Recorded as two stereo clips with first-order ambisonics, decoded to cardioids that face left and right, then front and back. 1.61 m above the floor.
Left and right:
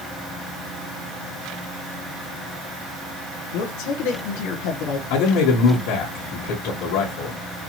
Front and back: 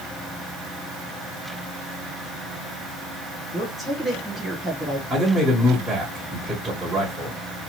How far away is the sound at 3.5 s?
About 1.3 m.